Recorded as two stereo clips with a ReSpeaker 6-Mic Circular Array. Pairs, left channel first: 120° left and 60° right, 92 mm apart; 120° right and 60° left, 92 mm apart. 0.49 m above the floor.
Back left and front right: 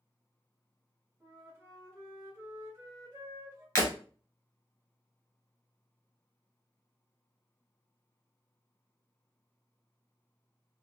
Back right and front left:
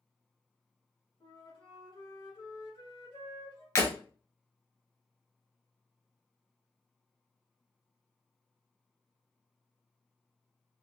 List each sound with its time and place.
1.2 s a flute: 120° right, 2.0 m
3.8 s breaking glass: straight behind, 1.5 m